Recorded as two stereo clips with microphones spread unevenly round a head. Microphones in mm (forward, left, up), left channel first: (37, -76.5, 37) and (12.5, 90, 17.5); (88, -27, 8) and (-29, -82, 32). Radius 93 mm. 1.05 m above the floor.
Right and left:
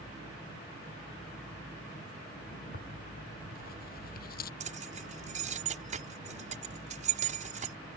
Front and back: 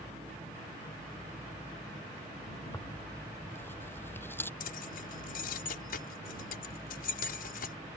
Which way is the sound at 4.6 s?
50° left.